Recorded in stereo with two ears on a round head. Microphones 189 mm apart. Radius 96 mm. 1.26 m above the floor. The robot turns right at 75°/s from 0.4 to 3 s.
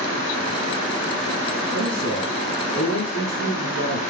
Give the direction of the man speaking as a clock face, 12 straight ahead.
2 o'clock.